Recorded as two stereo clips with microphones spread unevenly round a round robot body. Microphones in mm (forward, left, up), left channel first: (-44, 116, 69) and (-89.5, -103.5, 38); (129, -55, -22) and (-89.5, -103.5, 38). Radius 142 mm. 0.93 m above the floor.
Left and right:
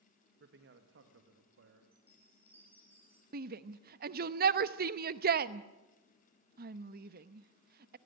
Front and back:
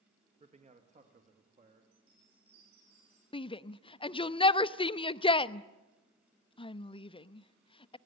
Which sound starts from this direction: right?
A man speaking, at 0.4 s.